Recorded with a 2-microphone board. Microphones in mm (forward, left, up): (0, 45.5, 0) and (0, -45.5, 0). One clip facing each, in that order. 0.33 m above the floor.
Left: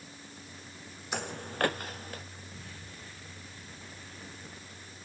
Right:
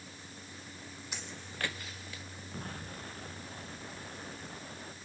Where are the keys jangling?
No keys jangling in this recording.